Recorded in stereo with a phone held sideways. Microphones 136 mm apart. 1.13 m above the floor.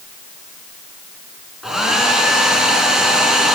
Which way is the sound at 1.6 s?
Centre (ahead or behind).